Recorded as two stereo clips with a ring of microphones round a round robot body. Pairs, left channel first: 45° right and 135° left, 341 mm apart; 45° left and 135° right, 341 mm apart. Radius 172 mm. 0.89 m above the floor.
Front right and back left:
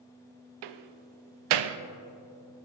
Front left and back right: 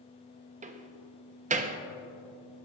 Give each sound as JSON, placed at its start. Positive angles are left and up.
{"t": 0.6, "sound": "a door slam", "azimuth_deg": 155, "distance_m": 0.5}